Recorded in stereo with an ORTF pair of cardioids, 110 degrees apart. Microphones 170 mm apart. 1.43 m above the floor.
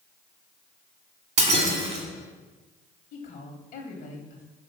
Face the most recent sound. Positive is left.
turn(degrees=55)